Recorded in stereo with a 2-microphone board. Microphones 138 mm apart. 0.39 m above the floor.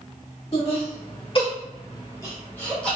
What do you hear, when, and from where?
0.5 s laughter: 50° left (ahead or behind), 1.6 m; by 3.0 s 5° left (ahead or behind), 0.9 m